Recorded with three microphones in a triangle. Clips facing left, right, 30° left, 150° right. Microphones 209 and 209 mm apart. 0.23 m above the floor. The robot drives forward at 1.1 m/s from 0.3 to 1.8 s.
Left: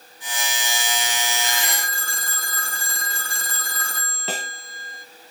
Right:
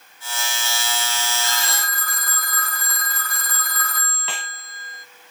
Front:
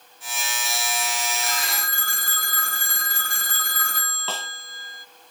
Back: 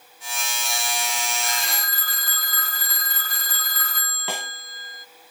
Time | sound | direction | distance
1.4 | a phone ringing | 30° left | ?
4.3 | a snare drum | 135° left | ?